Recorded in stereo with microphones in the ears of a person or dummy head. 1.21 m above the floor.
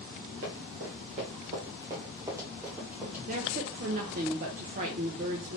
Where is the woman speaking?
35° right (ahead or behind), 0.5 m.